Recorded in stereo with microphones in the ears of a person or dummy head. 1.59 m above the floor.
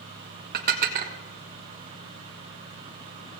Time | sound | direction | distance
0.5 | dishes clattering | 50° right (ahead or behind) | 1.3 m